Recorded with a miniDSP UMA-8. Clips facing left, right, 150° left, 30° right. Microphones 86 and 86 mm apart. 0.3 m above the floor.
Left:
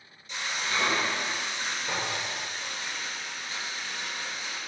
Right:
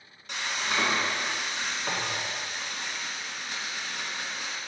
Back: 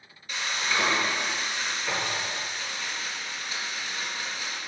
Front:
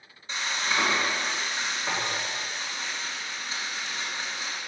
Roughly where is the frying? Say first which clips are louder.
Right 1 dB, even; right.